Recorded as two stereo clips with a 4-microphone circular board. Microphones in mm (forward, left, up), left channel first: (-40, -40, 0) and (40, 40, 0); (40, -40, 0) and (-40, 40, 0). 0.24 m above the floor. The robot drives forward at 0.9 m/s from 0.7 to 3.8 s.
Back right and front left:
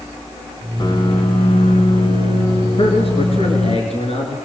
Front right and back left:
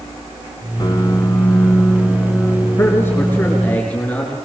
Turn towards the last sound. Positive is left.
turn(degrees=-120)